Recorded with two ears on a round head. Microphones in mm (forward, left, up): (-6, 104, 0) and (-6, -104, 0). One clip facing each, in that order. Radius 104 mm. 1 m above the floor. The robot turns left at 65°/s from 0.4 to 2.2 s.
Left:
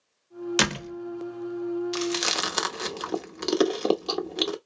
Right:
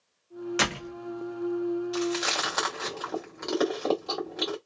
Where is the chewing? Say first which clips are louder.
Even; 35° left (ahead or behind), 0.8 m; by 4.6 s 45° left (ahead or behind), 0.8 m.